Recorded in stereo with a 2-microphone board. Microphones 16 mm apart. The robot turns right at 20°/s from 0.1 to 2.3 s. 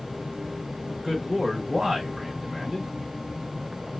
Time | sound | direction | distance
0.9 | a man speaking | 35° right (ahead or behind) | 2 m